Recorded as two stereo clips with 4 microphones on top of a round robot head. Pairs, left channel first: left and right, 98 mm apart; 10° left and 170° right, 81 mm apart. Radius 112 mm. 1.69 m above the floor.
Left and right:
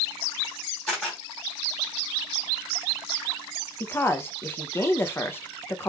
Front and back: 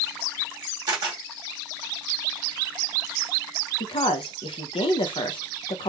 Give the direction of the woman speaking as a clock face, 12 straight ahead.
11 o'clock.